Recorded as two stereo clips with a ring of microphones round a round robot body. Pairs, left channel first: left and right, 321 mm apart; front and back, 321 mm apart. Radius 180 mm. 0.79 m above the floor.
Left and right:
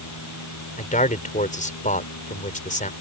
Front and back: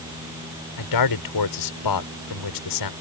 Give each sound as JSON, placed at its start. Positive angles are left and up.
{"t": 0.8, "sound": "a man speaking", "azimuth_deg": 25}